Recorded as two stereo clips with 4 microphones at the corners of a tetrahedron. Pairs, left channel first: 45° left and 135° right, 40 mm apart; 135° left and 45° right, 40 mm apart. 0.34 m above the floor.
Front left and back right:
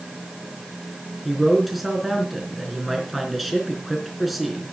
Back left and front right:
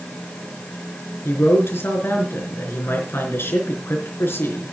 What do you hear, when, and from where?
1.2 s a man speaking: 135° left, 4 m